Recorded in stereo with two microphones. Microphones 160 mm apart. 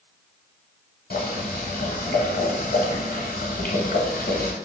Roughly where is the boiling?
Left.